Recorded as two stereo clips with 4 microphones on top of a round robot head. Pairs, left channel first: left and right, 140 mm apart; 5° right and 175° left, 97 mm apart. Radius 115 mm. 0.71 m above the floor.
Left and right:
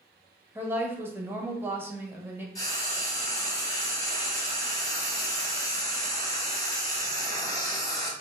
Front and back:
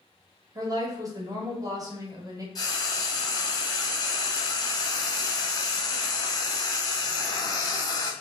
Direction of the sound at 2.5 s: 35° left.